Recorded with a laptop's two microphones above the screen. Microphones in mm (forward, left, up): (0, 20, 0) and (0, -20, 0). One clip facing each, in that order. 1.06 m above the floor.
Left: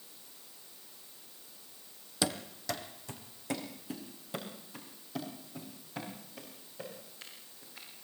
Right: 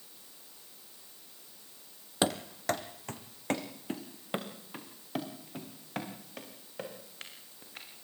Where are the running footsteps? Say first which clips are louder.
Right 4 dB; 40° right (ahead or behind), 1.4 m; by 8.0 s 65° right (ahead or behind), 9 m.